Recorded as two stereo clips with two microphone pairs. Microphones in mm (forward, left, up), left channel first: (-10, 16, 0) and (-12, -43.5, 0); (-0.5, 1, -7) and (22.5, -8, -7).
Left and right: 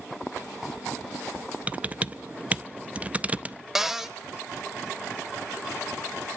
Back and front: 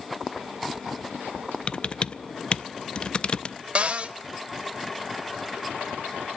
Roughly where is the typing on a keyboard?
Behind right.